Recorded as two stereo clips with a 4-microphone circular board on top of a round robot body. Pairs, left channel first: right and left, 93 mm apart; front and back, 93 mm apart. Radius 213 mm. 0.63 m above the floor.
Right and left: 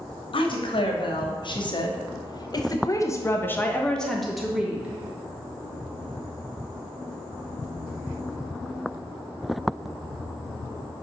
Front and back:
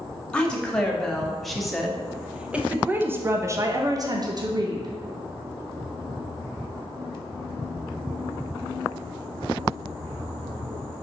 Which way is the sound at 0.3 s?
80° right.